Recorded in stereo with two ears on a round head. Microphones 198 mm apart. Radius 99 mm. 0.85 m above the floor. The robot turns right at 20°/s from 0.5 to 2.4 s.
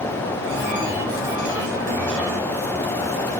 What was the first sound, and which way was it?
Only background noise.